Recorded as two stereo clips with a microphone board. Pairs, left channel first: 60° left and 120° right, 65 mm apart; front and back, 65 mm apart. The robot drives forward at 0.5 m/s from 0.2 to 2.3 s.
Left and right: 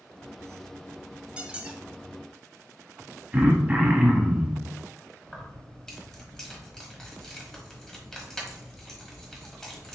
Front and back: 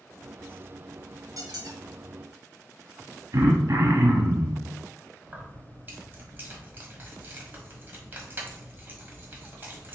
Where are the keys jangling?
140° left, 1.1 m.